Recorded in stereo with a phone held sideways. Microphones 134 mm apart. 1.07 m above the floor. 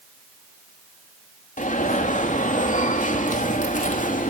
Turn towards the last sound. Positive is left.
turn(degrees=70)  # may be behind; listen again after turning